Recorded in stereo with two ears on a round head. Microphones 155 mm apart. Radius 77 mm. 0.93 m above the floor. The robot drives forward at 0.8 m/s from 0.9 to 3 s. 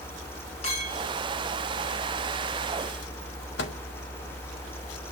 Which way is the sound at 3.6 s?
70° left (ahead or behind).